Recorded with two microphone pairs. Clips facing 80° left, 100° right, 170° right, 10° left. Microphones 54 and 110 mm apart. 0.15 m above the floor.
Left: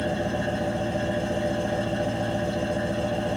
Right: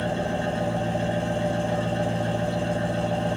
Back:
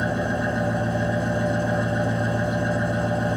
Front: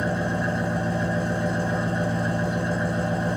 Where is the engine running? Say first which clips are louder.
Even, back 1 dB; 175° left, 2.5 m.